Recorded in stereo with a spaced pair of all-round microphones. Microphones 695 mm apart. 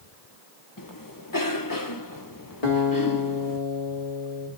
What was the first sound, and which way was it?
A cough, 30° left (ahead or behind).